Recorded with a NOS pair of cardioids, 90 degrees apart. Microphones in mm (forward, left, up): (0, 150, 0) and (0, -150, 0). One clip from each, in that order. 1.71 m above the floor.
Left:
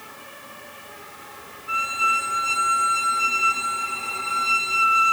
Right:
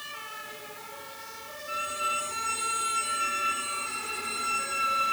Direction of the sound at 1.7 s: 70° left.